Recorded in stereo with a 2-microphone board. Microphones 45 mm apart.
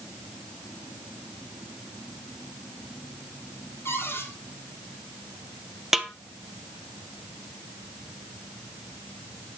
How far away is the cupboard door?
About 3.5 m.